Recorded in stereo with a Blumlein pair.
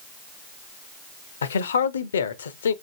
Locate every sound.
1.4 s a man speaking: 65° left, 0.6 m